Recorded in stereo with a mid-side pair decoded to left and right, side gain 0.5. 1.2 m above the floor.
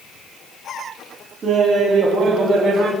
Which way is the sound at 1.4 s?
50° right.